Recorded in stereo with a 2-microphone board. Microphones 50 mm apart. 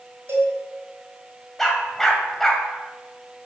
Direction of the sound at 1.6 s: 10° left (ahead or behind).